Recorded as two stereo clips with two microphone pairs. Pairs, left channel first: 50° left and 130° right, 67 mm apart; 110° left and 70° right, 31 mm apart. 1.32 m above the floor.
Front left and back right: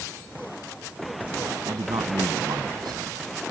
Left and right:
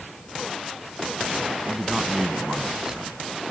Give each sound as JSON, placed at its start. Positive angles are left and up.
{"t": 1.6, "sound": "a man speaking", "azimuth_deg": -135}